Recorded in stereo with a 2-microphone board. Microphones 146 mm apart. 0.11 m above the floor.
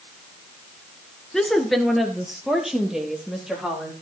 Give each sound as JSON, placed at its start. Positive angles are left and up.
{"t": 1.3, "sound": "a woman speaking", "side_deg": 5, "distance_m": 1.2}